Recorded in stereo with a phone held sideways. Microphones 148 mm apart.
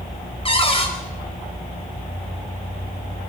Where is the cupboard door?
40° left (ahead or behind), 4.5 m.